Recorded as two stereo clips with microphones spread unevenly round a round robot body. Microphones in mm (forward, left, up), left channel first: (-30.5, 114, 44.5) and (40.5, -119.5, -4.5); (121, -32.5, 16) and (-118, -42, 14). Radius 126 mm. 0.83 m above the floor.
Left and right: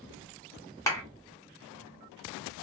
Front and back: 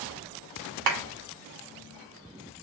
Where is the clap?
170° right, 2 m.